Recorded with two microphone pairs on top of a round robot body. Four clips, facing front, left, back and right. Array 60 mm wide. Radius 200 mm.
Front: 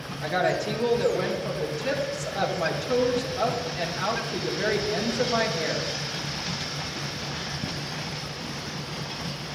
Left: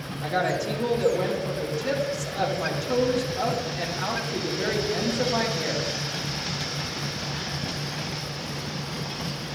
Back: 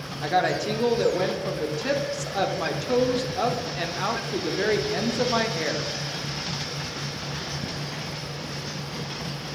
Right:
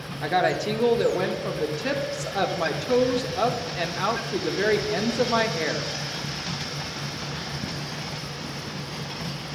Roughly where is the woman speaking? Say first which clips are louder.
Right 3 dB, back 2 dB; behind right.